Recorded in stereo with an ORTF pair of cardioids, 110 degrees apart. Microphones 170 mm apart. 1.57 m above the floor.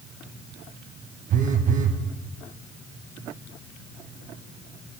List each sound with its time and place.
1.3 s a phone buzzing: 50° right, 1.1 m